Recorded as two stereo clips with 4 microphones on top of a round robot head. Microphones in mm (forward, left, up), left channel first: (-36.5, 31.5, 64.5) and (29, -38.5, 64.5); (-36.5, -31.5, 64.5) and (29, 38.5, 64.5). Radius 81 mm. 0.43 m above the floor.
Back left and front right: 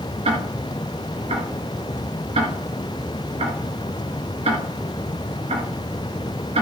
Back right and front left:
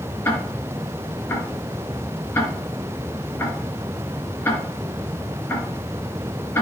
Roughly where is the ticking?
Ahead right.